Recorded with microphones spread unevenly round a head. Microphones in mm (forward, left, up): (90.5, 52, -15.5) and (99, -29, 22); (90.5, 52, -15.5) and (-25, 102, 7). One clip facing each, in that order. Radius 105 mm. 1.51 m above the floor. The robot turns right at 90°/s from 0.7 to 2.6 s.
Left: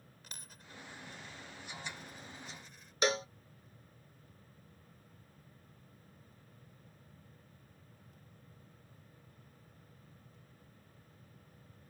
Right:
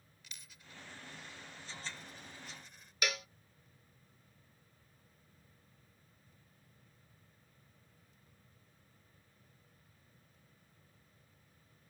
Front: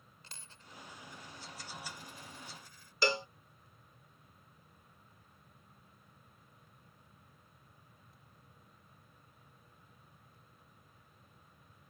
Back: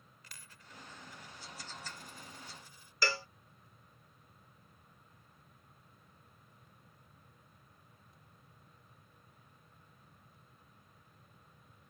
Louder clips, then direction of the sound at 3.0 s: Left 7 dB, front 4 dB; 45° left.